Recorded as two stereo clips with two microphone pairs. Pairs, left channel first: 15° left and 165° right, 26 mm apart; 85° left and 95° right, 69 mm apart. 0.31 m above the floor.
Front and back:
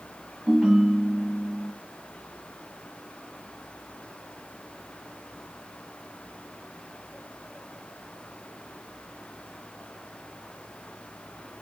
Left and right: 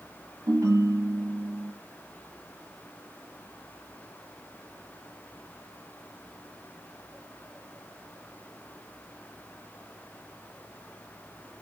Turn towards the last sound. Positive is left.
turn(degrees=-105)